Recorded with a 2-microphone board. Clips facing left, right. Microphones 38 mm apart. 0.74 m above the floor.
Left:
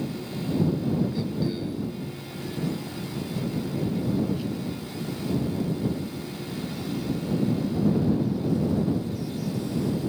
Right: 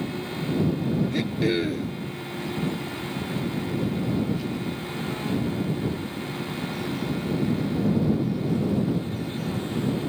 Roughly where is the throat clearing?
Right.